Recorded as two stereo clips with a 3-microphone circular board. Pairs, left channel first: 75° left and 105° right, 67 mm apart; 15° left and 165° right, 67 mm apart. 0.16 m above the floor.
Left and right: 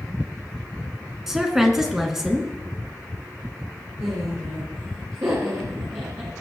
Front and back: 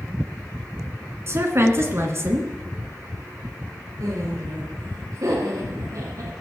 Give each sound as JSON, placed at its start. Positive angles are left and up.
{"t": 1.3, "sound": "a woman speaking", "azimuth_deg": 175, "distance_m": 1.8}
{"t": 4.0, "sound": "laughter", "azimuth_deg": -140, "distance_m": 3.5}